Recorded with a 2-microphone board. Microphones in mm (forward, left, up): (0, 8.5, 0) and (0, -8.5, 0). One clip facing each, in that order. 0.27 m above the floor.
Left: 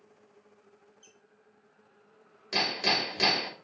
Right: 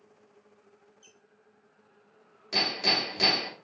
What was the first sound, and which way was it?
A squeak, 15° right (ahead or behind).